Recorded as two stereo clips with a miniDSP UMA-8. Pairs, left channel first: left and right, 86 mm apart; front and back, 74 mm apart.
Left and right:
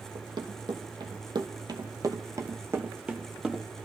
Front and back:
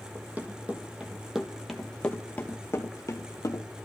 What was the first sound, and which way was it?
Running footsteps, 115° right.